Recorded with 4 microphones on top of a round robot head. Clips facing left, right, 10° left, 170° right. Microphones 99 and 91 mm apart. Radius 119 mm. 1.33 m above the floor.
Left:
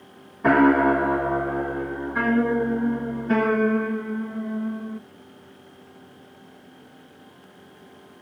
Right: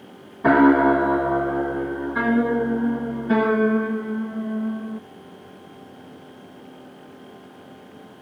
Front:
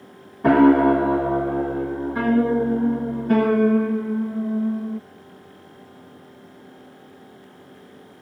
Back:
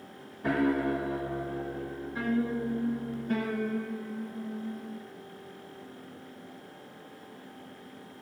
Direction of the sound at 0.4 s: 10° right.